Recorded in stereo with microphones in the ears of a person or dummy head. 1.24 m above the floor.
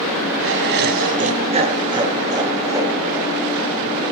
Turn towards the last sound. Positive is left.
turn(degrees=-5)  # may be behind; listen again after turning